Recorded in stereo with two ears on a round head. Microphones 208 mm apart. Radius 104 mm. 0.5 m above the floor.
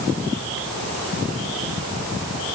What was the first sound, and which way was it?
Only background noise.